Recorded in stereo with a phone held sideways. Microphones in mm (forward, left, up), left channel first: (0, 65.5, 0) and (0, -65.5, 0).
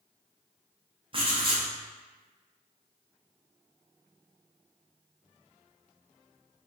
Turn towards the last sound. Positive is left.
turn(degrees=-40)  # may be behind; listen again after turning